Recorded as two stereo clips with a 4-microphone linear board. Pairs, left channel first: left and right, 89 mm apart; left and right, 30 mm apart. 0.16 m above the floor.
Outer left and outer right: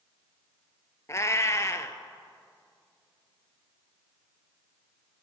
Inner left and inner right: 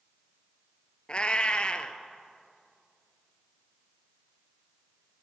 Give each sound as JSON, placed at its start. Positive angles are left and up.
{"t": 1.1, "sound": "a cat meowing", "side_deg": 35, "distance_m": 0.6}